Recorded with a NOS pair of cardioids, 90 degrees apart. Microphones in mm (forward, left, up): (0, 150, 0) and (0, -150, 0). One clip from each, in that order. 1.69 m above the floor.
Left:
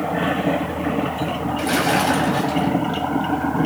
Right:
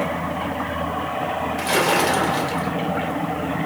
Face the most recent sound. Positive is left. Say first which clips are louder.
# even
turn(degrees=-35)